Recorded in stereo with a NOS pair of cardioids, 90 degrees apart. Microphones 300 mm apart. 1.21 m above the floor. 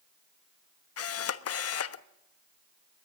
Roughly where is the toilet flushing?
No toilet flushing in this recording.